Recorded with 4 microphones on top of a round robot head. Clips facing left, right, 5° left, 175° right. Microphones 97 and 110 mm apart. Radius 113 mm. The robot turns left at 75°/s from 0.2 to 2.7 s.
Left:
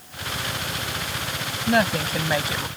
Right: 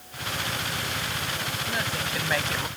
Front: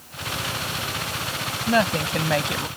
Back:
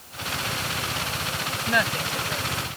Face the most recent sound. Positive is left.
turn(degrees=-5)